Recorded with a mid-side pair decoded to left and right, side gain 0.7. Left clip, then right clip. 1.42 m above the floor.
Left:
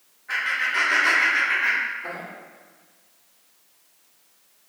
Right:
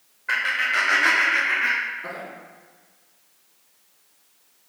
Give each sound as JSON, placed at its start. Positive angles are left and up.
{"t": 0.3, "sound": "laughter", "azimuth_deg": -50, "distance_m": 0.9}